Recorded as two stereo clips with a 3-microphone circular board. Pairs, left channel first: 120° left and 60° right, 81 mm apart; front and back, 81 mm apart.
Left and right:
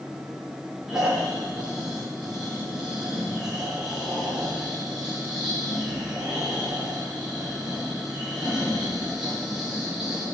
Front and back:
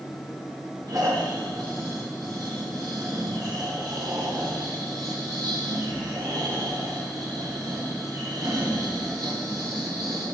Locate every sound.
0.9 s snoring: 140° right, 9 m